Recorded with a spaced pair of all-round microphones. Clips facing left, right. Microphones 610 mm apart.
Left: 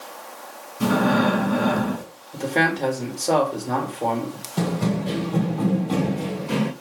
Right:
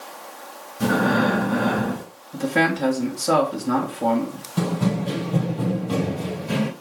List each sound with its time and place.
0.8 s breathing: 15° right (ahead or behind), 1.8 m
2.3 s a man speaking: 35° right (ahead or behind), 1.3 m
4.6 s running footsteps: 35° right (ahead or behind), 2.5 m; by 6.7 s 40° right (ahead or behind), 1.4 m